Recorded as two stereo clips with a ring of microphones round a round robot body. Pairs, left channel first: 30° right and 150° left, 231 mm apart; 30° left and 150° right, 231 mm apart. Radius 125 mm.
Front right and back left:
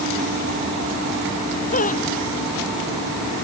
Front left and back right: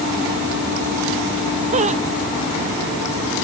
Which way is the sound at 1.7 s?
90° right.